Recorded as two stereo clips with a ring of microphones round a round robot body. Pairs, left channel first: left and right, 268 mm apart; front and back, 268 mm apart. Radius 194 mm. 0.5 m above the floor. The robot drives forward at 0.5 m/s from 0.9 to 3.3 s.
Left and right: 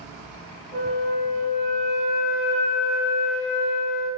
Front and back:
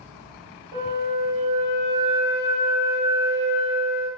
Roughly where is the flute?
Behind left.